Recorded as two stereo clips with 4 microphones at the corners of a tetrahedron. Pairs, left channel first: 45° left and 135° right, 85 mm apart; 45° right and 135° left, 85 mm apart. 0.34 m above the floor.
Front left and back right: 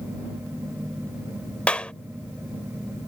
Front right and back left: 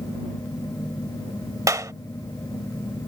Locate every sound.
1.7 s a clap: 115° left